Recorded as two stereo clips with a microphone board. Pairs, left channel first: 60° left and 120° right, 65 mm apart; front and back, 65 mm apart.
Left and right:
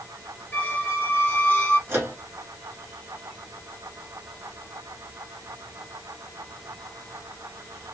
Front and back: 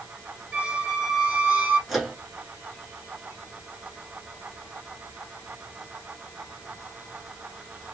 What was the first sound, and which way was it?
A squeak, 115° left.